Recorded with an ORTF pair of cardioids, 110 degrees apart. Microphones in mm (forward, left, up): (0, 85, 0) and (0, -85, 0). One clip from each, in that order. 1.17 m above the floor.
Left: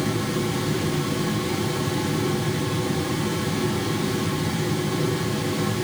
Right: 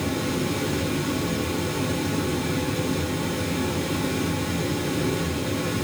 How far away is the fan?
About 6 m.